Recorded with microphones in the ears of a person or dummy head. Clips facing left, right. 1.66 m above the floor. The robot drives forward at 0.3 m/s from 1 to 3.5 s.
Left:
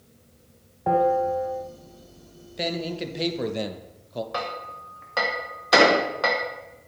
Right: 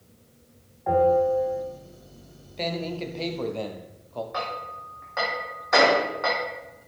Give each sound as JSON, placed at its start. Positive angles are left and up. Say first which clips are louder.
{"t": 0.9, "sound": "a bell", "louder": "right 2 dB", "side_deg": 55, "distance_m": 1.8}
{"t": 2.6, "sound": "a man speaking", "louder": "left 1 dB", "side_deg": 15, "distance_m": 0.8}
{"t": 4.3, "sound": "hammering", "louder": "left 1 dB", "side_deg": 50, "distance_m": 1.5}
{"t": 5.7, "sound": "an explosion", "louder": "left 2 dB", "side_deg": 50, "distance_m": 0.9}